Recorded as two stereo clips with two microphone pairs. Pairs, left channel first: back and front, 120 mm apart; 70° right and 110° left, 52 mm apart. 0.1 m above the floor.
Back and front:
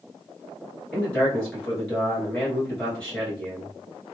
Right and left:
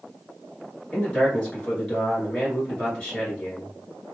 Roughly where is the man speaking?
Right.